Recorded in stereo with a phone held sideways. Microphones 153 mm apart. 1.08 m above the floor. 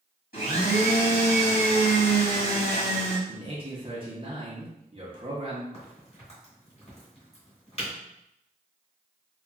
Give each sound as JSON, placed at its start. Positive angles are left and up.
{"t": 0.3, "sound": "a blender", "side_deg": 90, "distance_m": 1.8}
{"t": 3.3, "sound": "a man speaking", "side_deg": -35, "distance_m": 0.7}
{"t": 5.7, "sound": "a crack", "side_deg": 40, "distance_m": 1.5}